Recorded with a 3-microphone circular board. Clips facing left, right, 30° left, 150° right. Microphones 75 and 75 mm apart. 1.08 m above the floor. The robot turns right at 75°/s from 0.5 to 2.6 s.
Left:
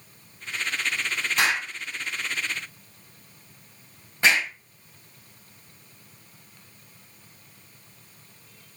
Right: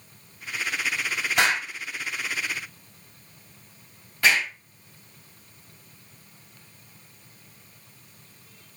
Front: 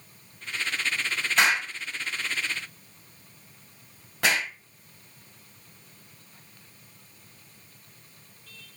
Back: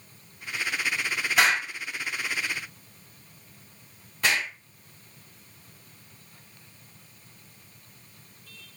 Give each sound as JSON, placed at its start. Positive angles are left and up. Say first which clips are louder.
{"t": 1.4, "sound": "an explosion", "louder": "right 2 dB, even", "azimuth_deg": -65, "distance_m": 4.0}